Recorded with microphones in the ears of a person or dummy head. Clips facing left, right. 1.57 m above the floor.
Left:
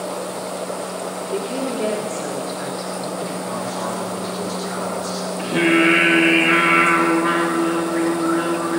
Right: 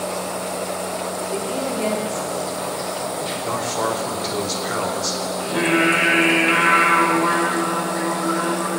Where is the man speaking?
65° right (ahead or behind), 3.5 m.